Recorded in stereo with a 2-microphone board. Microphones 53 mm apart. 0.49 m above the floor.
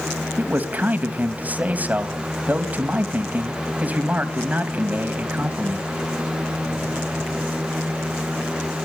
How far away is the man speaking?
About 3 m.